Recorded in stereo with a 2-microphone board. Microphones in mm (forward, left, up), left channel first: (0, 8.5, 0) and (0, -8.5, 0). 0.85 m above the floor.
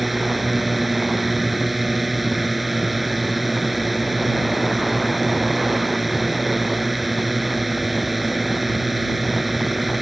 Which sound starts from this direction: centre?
A drone, at 0.0 s.